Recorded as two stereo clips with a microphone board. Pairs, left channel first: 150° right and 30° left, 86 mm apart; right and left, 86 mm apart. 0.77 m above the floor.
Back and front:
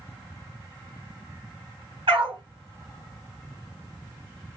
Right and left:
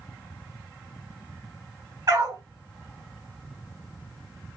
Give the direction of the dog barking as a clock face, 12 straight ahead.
10 o'clock.